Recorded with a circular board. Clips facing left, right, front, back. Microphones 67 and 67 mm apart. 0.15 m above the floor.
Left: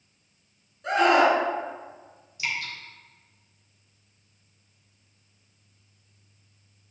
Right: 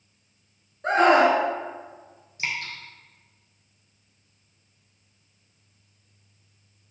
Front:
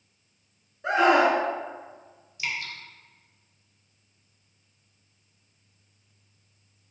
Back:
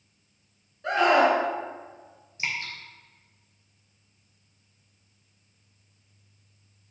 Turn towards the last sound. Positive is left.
turn(degrees=-130)